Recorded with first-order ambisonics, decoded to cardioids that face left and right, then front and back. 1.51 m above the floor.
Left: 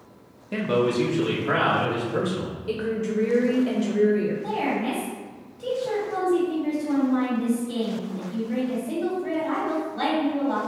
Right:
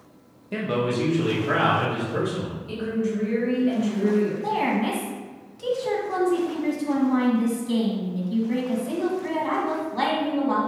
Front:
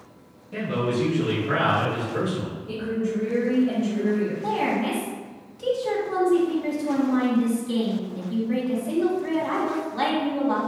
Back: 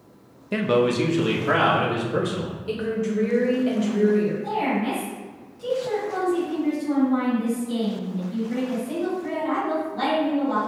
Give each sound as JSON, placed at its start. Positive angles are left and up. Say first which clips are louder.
{"t": 0.5, "sound": "a man speaking", "louder": "left 2 dB, back 6 dB", "azimuth_deg": 175, "distance_m": 0.6}
{"t": 2.7, "sound": "a woman speaking", "louder": "left 1 dB, back 2 dB", "azimuth_deg": 135, "distance_m": 0.9}
{"t": 4.4, "sound": "a woman speaking", "louder": "right 2 dB, even", "azimuth_deg": -60, "distance_m": 1.8}